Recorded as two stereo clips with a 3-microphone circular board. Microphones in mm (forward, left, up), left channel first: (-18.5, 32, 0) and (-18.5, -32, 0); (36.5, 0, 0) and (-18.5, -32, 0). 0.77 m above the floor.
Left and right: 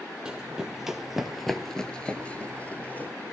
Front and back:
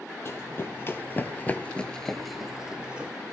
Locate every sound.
0.2 s running footsteps: 15° right, 1.3 m; by 3.1 s 145° left, 1.0 m